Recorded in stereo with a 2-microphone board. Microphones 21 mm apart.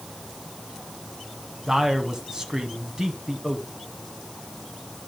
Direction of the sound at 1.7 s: 35° right (ahead or behind).